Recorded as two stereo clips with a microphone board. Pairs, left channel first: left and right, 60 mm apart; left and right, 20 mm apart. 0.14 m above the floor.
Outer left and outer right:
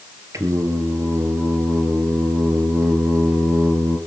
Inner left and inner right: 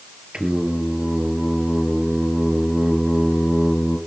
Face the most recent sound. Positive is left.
turn(degrees=-60)  # may be behind; listen again after turning